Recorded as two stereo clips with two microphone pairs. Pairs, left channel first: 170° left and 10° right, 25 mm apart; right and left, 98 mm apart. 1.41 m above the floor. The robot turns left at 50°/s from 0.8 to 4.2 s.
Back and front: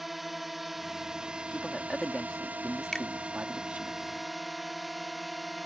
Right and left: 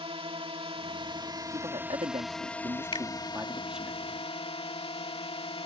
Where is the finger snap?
120° right; by 3.1 s 125° right.